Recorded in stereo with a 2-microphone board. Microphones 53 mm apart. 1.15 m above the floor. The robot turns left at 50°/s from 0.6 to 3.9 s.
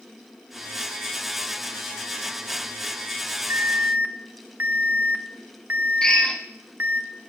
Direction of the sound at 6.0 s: 15° left (ahead or behind).